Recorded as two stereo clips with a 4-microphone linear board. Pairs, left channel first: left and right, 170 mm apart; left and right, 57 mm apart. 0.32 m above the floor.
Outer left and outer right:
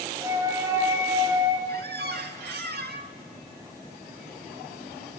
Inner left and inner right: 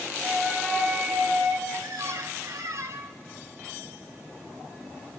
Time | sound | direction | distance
0.2 | a flute | 20° right (ahead or behind) | 2 m
1.7 | a squeak | 70° right (ahead or behind) | 0.6 m